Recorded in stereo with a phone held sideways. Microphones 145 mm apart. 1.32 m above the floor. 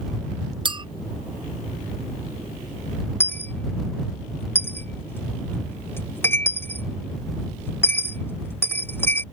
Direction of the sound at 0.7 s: 35° right (ahead or behind).